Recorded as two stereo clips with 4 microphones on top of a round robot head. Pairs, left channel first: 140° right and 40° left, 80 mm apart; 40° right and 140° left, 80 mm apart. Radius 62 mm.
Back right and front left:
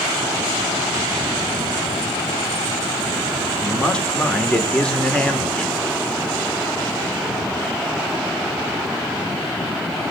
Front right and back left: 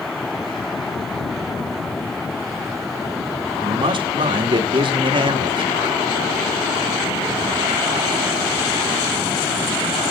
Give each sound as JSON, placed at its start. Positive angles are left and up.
{"t": 3.6, "sound": "a man speaking", "azimuth_deg": 145, "distance_m": 2.0}